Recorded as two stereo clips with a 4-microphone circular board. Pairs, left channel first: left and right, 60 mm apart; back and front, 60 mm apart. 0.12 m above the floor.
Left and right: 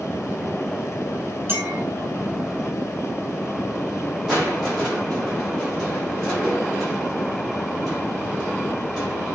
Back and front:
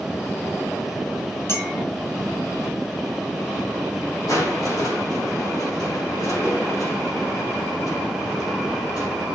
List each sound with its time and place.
1.5 s a clink: 145° right, 2.5 m
4.3 s crushing: 175° right, 6.5 m